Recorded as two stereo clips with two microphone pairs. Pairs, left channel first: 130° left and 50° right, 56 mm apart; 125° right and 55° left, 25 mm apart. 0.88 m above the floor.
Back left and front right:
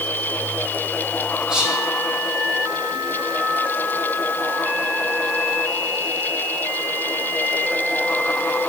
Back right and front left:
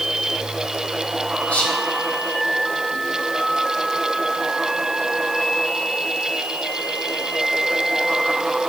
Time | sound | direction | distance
1.5 | whispering | 125° right | 1.5 m